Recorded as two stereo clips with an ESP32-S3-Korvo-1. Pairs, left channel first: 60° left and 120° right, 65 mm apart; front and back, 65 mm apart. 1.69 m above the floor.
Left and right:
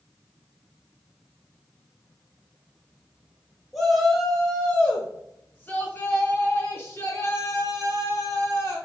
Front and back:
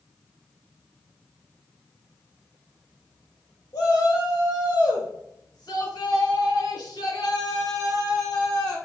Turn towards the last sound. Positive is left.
turn(degrees=15)